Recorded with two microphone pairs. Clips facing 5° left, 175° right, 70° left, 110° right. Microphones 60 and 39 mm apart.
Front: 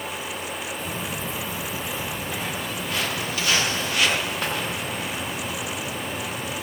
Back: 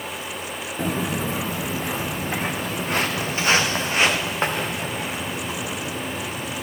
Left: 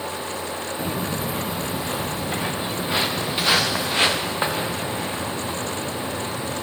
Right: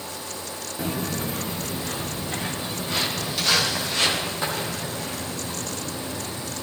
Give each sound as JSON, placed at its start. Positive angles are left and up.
{"t": 0.8, "sound": "footsteps", "azimuth_deg": 165, "distance_m": 1.2}